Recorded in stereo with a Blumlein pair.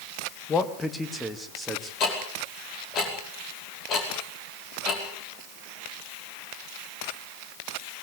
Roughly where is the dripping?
I don't hear dripping.